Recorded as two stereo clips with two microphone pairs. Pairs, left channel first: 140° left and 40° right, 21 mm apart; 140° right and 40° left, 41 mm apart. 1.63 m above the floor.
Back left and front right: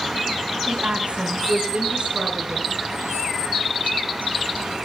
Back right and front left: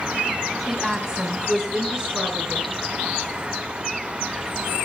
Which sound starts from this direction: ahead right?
A woman speaking, at 0.7 s.